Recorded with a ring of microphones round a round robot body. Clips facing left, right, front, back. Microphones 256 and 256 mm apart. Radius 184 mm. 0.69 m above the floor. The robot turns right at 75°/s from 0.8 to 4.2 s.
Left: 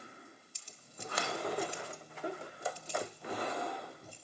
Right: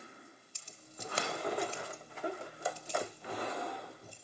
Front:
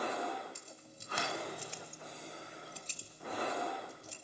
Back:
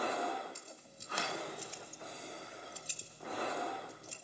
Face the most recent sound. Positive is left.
turn(degrees=-160)